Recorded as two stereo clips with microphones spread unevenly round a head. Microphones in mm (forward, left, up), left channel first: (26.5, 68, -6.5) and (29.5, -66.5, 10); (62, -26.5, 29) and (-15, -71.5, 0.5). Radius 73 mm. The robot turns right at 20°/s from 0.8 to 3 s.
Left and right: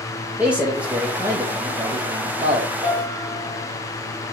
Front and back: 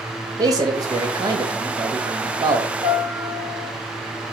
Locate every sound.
0.4 s a man speaking: 175° right, 1.1 m; by 2.7 s 135° right, 1.1 m
2.8 s a piano: 140° right, 2.5 m